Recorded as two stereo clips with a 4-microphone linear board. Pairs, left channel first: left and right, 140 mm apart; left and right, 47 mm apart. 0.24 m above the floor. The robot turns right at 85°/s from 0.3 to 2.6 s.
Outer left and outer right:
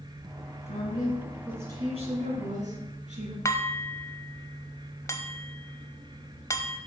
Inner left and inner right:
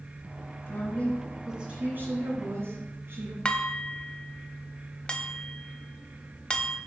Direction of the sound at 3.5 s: 20° left (ahead or behind).